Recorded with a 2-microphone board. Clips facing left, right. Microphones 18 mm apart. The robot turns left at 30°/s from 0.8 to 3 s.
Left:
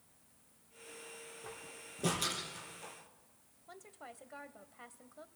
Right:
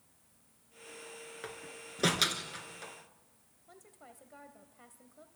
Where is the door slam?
80° right, 3 m; by 2.9 s 50° right (ahead or behind), 3 m.